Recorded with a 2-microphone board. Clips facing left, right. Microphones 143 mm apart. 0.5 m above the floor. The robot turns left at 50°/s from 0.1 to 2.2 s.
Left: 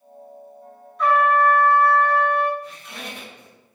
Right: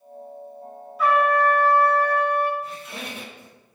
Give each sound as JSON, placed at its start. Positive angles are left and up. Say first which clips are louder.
{"t": 1.0, "sound": "a trumpet", "louder": "left 1 dB", "azimuth_deg": -170, "distance_m": 1.3}
{"t": 2.6, "sound": "a squeak", "louder": "right 2 dB", "side_deg": -5, "distance_m": 3.0}